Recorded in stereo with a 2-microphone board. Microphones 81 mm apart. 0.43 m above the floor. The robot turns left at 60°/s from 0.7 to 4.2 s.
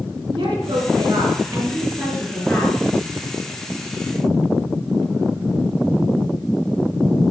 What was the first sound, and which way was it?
A woman speaking, 105° right.